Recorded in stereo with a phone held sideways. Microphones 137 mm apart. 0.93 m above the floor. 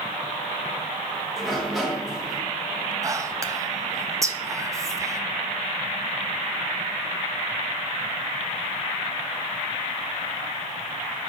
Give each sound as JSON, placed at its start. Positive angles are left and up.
{"t": 1.4, "sound": "a sliding door", "side_deg": 0, "distance_m": 1.2}
{"t": 3.0, "sound": "whispering", "side_deg": -25, "distance_m": 0.6}